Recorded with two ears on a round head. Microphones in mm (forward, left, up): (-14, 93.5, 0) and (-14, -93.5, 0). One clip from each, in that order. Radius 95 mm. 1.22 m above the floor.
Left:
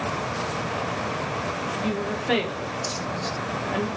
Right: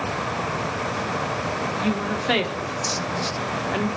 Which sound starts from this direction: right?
A woman speaking, at 1.8 s.